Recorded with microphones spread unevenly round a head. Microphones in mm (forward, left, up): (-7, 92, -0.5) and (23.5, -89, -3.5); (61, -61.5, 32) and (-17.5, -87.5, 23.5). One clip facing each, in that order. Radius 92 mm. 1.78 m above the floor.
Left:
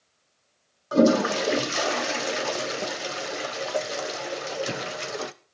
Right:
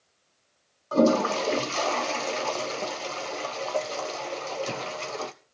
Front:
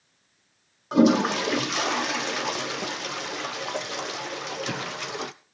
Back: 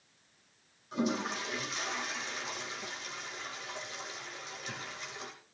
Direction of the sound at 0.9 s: 25° left.